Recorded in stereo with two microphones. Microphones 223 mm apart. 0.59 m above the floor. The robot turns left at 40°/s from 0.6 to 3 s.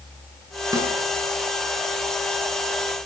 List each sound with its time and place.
0.7 s a snare drum: 15° right (ahead or behind), 6.5 m; by 0.9 s 10° right (ahead or behind), 6.5 m